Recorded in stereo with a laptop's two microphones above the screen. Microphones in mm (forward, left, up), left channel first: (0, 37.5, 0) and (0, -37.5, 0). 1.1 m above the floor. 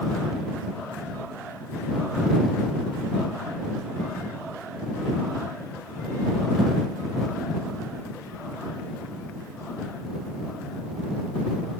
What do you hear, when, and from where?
Only background noise.